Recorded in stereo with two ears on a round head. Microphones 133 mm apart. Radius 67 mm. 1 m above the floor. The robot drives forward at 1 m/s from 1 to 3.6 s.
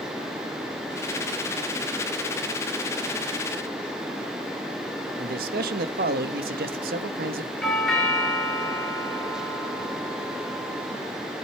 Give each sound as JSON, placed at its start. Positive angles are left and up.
{"t": 5.2, "sound": "a man speaking", "side_deg": -65, "distance_m": 1.0}
{"t": 7.6, "sound": "a doorbell", "side_deg": 0, "distance_m": 3.0}